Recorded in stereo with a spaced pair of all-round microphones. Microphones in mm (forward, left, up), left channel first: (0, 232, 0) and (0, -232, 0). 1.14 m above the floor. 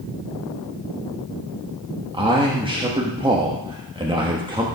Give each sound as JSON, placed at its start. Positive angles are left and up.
{"t": 2.1, "sound": "a man speaking", "side_deg": -10, "distance_m": 1.2}